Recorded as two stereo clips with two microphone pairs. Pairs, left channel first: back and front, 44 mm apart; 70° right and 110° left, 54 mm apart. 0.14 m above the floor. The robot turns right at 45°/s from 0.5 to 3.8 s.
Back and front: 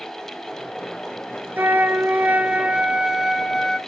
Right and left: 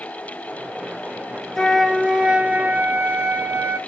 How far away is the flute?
About 0.7 m.